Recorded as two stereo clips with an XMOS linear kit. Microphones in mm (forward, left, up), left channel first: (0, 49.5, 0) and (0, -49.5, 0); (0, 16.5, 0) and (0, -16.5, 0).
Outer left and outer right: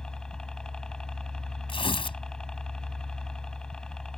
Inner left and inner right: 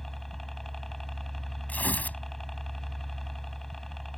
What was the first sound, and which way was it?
A helicopter, 5° left (ahead or behind).